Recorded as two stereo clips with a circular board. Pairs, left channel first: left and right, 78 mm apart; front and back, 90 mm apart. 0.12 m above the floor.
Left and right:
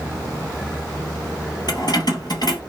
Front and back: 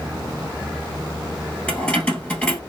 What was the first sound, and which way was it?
Keys jangling, 75° left.